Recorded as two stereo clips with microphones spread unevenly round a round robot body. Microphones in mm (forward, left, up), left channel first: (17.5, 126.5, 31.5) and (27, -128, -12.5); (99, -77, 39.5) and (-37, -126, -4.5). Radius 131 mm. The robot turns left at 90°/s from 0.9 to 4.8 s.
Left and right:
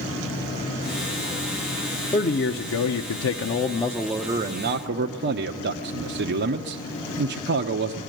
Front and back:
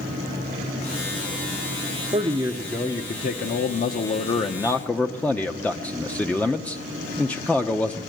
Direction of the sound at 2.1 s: 170° left.